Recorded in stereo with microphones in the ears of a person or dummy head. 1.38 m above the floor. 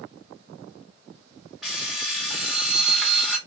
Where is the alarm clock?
Centre (ahead or behind), 0.8 m.